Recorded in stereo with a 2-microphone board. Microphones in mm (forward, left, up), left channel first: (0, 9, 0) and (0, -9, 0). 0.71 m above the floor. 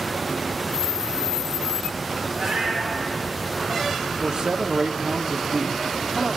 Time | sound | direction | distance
2.3 | a cat meowing | 55° right (ahead or behind) | 6.5 m
4.2 | a man speaking | 60° right (ahead or behind) | 1.2 m